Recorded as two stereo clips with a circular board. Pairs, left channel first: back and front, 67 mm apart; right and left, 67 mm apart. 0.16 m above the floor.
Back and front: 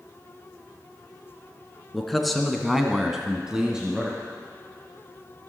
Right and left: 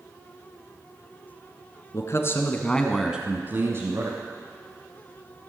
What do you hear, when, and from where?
1.9 s a man speaking: 95° right, 1.7 m; by 4.2 s 80° left, 2.0 m